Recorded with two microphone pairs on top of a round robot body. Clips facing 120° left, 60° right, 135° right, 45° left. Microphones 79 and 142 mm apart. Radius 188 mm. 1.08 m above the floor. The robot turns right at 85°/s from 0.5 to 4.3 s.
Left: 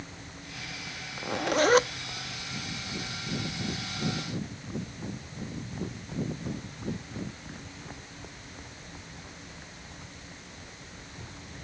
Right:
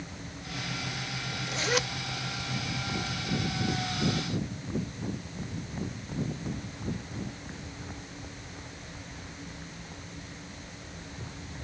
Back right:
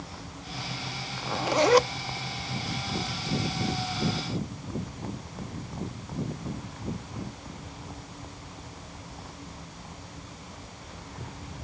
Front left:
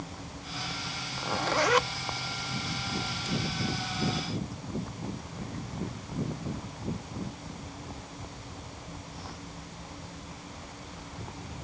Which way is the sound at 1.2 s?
120° left.